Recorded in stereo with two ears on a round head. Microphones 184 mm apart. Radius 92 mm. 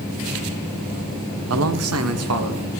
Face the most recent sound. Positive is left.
turn(degrees=-85)